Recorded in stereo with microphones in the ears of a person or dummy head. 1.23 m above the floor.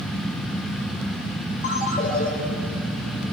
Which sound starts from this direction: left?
A ringtone, at 1.6 s.